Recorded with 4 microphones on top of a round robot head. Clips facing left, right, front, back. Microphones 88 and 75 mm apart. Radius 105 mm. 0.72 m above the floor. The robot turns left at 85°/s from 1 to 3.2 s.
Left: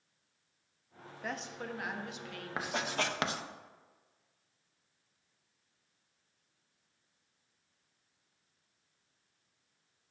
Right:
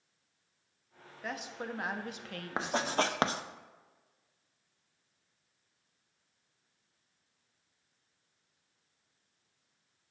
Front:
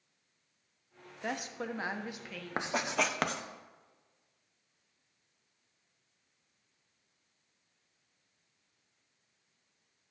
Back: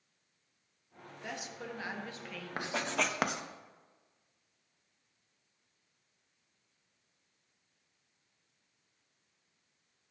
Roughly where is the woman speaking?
Ahead.